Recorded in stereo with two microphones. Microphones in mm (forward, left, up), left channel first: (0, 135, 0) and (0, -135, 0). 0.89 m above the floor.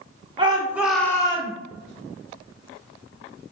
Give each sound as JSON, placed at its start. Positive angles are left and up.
{"t": 0.4, "sound": "a shout", "side_deg": -15, "distance_m": 0.9}